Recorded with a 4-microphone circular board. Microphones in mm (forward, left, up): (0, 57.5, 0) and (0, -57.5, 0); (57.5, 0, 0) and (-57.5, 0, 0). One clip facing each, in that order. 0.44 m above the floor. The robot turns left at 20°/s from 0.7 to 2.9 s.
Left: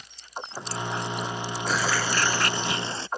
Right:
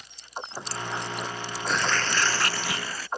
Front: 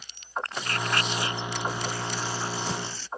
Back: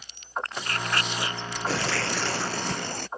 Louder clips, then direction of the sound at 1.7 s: Even, back 8 dB; 175° left.